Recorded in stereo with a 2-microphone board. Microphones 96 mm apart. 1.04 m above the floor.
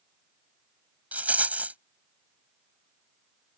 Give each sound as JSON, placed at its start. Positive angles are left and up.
{"t": 1.1, "sound": "a rattle", "side_deg": -15}